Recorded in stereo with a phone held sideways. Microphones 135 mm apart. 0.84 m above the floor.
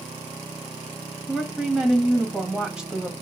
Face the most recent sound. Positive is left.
turn(degrees=-5)  # may be behind; listen again after turning